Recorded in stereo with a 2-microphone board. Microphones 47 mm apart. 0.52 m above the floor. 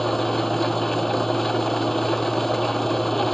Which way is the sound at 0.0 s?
5° left (ahead or behind).